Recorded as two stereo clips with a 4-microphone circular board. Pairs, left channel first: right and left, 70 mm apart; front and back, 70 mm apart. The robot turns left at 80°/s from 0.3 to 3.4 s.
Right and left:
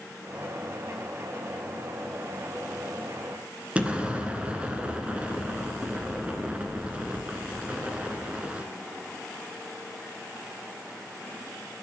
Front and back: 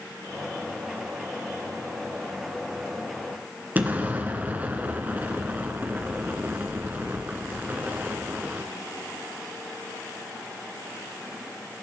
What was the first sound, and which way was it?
An explosion, 145° left.